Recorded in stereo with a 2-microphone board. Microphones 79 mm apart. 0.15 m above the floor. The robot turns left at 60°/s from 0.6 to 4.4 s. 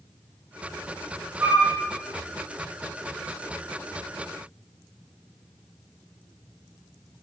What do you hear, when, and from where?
1.4 s a flute: 35° right (ahead or behind), 1.5 m